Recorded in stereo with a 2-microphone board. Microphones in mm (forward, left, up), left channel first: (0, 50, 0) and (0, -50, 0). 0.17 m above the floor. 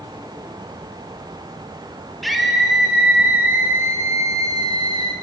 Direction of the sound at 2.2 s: Centre (ahead or behind).